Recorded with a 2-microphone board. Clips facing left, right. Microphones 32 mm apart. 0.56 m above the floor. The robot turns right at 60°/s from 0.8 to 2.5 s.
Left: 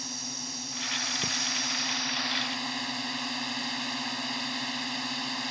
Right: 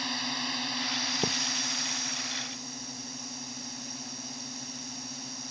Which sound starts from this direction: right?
A thud, at 1.2 s.